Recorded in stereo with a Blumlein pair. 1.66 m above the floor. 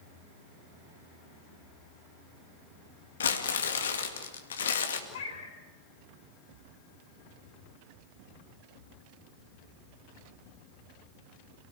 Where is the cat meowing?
60° left, 5.5 m.